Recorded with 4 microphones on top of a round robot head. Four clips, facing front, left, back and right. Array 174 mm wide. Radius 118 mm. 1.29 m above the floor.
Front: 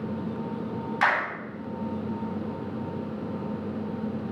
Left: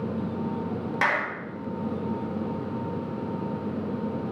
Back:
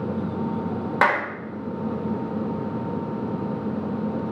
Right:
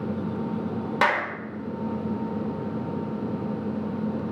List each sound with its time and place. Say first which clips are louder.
1.0 s a clap: right 3 dB, back 4 dB; 165° right, 4.5 m